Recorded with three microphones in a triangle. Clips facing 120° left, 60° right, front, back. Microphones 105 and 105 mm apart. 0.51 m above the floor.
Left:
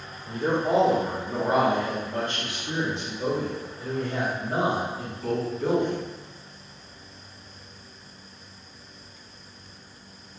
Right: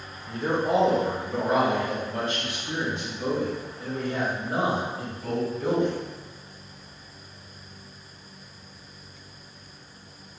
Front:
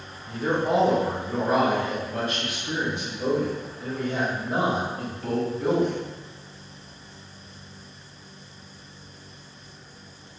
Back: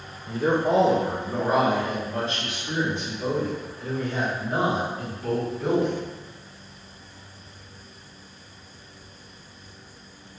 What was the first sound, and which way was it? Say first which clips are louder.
A man speaking: left 1 dB, back 2 dB; 170° left.